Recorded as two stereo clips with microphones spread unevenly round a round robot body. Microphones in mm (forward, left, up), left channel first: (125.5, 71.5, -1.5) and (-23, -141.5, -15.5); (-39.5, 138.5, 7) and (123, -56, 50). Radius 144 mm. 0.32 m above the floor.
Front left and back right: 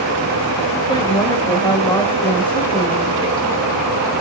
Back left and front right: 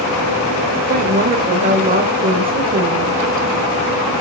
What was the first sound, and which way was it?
A woman speaking, 5° right.